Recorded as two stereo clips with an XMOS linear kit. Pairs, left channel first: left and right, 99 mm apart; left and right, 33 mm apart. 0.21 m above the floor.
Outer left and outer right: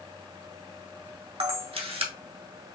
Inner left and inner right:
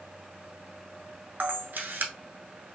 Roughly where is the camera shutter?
Right.